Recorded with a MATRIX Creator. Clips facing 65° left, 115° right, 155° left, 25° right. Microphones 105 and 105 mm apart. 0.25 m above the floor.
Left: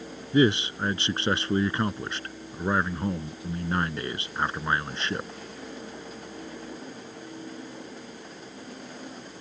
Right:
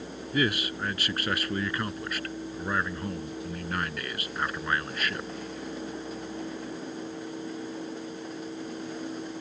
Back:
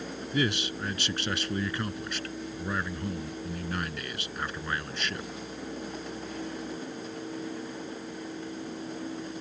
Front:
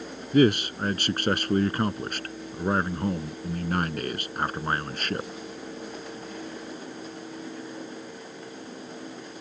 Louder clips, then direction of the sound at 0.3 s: Left 7 dB, front 10 dB; 10° left.